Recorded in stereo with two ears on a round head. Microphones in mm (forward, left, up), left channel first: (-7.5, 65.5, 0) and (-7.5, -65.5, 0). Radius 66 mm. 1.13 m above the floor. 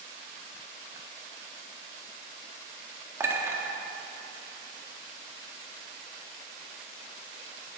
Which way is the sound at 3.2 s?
20° right (ahead or behind).